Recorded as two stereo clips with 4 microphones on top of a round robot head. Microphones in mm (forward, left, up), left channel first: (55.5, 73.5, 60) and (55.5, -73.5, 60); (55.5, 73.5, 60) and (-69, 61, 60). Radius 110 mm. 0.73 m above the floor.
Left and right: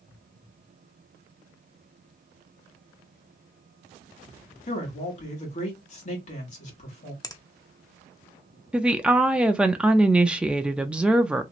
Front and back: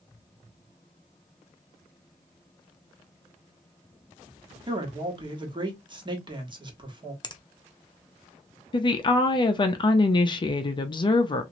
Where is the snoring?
I don't hear snoring.